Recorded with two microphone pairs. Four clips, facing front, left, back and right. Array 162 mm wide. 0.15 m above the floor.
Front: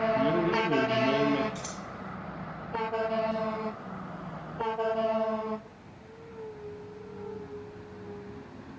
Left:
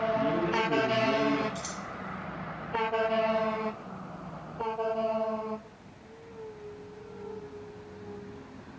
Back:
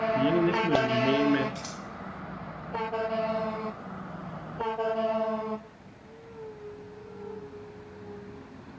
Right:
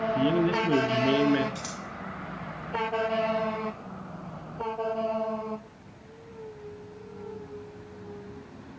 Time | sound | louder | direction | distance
0.1 | a man speaking | right 3 dB, back 1 dB | 140° right | 2.5 m
1.6 | scissors | even, even | 100° right | 1.8 m